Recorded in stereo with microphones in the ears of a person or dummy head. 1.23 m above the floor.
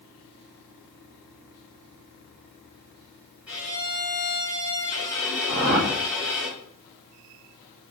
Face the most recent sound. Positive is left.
turn(degrees=-55)  # may be behind; listen again after turning